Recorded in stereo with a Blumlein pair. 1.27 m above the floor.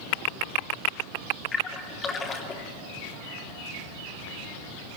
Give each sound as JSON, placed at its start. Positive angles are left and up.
{"t": 1.5, "sound": "a splash", "azimuth_deg": 20, "distance_m": 2.5}